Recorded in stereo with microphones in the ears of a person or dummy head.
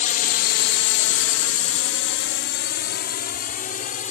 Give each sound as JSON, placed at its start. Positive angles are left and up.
{"t": 0.0, "sound": "a drone", "side_deg": 45}